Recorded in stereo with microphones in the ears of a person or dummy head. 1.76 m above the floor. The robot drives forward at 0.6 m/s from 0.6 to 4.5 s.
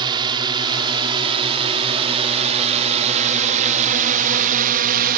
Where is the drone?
25° right (ahead or behind); by 5.2 s 50° right (ahead or behind).